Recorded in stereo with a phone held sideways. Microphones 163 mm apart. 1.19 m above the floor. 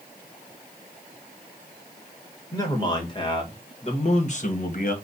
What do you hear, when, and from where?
2.5 s a man speaking: 25° left (ahead or behind), 1.7 m; by 5.0 s 60° left (ahead or behind), 1.1 m